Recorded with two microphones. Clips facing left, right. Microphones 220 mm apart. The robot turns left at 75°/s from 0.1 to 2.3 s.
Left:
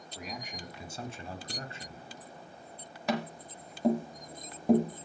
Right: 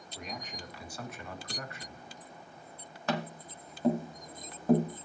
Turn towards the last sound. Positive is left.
turn(degrees=15)  # may be behind; listen again after turning